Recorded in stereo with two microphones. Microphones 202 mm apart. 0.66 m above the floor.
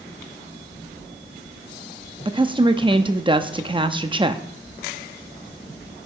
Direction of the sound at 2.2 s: 25° right (ahead or behind).